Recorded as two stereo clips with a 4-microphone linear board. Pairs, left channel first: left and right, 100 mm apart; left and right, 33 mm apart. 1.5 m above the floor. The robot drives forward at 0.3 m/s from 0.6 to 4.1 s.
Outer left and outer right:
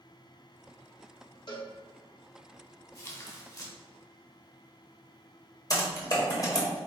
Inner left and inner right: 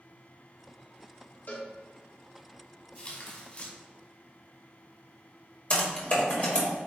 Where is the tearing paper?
35° left (ahead or behind), 1.8 m.